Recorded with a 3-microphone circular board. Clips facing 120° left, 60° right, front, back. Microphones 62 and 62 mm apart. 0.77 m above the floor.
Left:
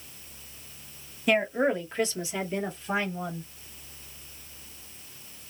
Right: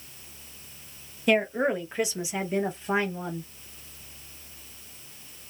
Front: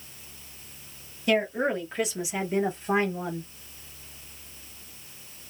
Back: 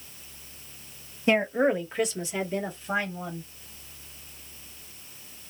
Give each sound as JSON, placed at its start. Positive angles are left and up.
{"t": 1.3, "sound": "a woman speaking", "azimuth_deg": -160, "distance_m": 1.1}